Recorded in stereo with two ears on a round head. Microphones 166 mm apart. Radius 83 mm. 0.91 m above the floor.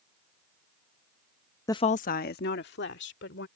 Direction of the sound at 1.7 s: 15° left (ahead or behind).